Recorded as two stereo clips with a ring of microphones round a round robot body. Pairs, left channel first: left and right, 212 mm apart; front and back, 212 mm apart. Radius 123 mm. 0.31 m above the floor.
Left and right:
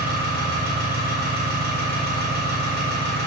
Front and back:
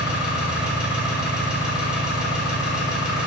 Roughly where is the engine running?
Right.